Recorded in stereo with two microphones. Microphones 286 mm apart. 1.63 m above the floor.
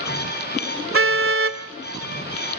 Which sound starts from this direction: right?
A car horn, at 0.9 s.